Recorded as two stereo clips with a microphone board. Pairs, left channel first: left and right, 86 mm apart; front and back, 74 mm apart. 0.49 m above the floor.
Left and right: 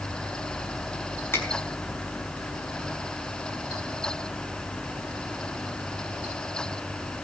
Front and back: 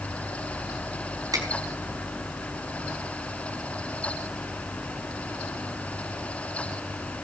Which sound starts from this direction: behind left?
A finger snap, at 1.3 s.